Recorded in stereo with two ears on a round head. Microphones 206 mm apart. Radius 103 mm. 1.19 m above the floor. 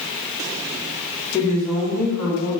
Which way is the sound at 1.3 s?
20° left (ahead or behind).